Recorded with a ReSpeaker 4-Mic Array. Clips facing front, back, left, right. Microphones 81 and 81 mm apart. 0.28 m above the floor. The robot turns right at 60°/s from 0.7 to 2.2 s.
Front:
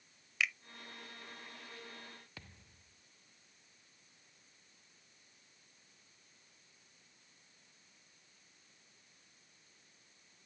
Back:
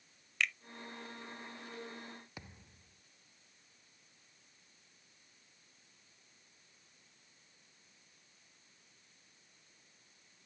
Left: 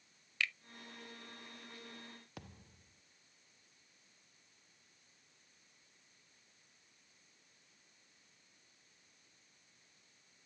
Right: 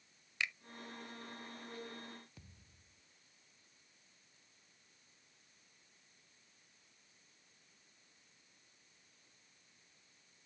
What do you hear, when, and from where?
0.4 s a finger snap: 75° right
2.4 s a thud: 110° left